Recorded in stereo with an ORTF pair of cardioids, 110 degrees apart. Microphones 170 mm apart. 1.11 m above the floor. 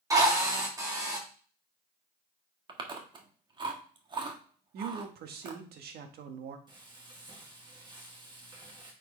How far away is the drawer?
No drawer in this recording.